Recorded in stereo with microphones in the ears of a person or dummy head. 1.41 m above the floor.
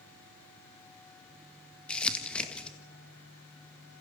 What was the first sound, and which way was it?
Crumpling, 5° left (ahead or behind).